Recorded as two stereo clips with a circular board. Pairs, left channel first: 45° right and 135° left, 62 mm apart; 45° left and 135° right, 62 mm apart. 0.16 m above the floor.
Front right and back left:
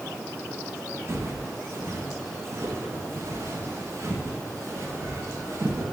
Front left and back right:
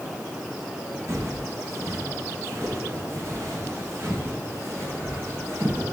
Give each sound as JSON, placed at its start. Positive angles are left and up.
{"t": 1.1, "sound": "footsteps", "azimuth_deg": -175, "distance_m": 3.5}